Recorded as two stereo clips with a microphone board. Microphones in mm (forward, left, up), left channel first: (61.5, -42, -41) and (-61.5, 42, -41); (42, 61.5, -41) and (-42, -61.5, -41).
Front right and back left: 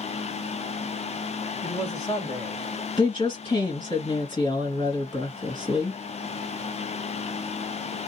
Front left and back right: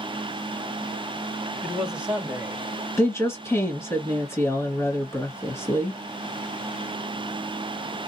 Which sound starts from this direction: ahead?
A woman speaking, at 3.0 s.